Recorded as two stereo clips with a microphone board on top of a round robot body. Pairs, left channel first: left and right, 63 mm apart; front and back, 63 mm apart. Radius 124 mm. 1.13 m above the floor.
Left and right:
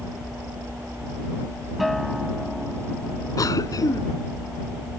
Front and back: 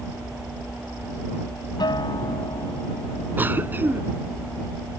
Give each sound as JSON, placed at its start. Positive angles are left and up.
{"t": 1.8, "sound": "a guitar", "azimuth_deg": 0}
{"t": 3.4, "sound": "a cough", "azimuth_deg": 120}